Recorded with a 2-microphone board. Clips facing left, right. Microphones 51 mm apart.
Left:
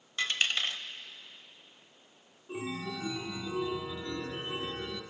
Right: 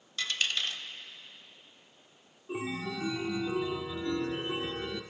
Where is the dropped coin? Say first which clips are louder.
Left 2 dB; 25° left (ahead or behind), 0.7 m.